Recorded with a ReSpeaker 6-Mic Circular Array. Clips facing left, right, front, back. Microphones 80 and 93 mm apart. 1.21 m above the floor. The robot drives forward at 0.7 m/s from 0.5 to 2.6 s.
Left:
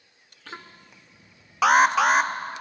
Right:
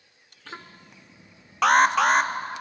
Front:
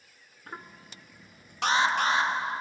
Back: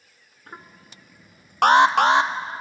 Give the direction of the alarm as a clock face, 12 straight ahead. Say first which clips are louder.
Even, back 10 dB; 6 o'clock.